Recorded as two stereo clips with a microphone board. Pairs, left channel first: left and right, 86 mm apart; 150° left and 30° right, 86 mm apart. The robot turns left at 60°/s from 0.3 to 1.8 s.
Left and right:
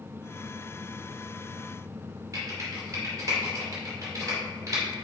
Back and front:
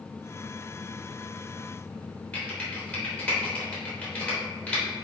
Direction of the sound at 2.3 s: 140° right.